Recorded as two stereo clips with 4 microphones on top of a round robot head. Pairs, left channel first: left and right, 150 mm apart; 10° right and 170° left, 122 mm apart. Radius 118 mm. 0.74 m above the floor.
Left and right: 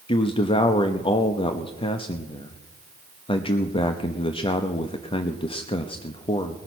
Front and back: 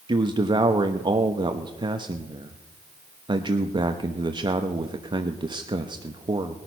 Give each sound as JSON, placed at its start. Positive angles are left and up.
{"t": 0.1, "sound": "a man speaking", "azimuth_deg": 130, "distance_m": 1.0}